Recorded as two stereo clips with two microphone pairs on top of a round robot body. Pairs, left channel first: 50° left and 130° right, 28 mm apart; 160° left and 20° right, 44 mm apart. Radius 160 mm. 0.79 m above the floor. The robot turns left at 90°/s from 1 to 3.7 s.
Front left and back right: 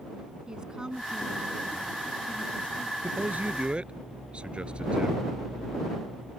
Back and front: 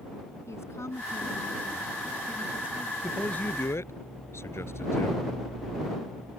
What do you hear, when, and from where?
0.5 s a woman speaking: 170° left; by 2.9 s 5° right
3.0 s a man speaking: 120° right; by 5.2 s straight behind